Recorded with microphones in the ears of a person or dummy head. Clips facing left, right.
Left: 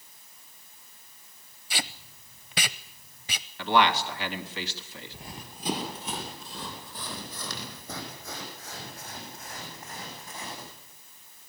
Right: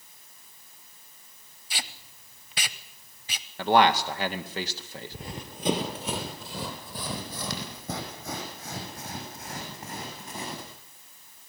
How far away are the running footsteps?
About 2.5 m.